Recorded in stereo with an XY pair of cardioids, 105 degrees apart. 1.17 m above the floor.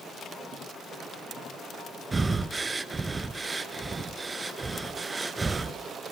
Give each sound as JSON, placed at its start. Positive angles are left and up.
{"t": 2.1, "sound": "breathing", "azimuth_deg": -25, "distance_m": 1.2}